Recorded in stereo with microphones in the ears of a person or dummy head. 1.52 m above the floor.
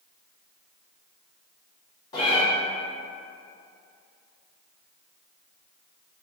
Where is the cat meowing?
30° left (ahead or behind), 1.3 m.